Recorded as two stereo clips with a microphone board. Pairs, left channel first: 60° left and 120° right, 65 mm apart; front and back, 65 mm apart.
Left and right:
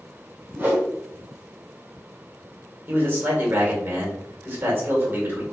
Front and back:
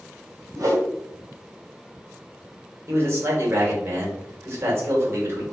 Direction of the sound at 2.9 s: 155° right.